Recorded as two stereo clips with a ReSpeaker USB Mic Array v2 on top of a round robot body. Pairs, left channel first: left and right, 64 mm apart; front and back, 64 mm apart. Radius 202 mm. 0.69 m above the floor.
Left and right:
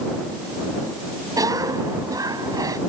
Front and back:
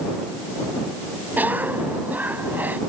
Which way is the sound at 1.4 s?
115° right.